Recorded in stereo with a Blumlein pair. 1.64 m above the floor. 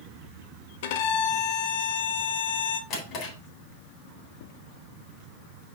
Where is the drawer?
35° left, 3.5 m.